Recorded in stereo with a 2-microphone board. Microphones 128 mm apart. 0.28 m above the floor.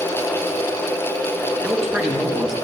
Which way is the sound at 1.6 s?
5° right (ahead or behind).